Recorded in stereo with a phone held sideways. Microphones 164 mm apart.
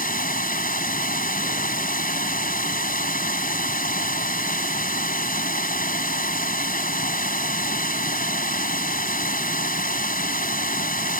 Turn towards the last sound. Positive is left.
turn(degrees=60)  # may be behind; listen again after turning